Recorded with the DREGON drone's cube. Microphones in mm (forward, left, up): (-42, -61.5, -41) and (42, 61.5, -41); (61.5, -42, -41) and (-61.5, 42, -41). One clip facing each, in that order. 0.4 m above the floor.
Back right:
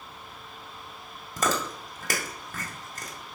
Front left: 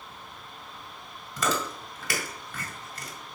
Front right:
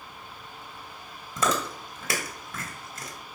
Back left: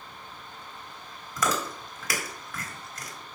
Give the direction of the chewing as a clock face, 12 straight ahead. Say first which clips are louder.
Back right 1 dB, front right 2 dB; 3 o'clock.